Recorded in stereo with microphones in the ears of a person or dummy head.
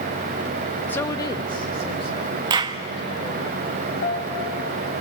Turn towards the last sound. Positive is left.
turn(degrees=45)  # may be behind; listen again after turning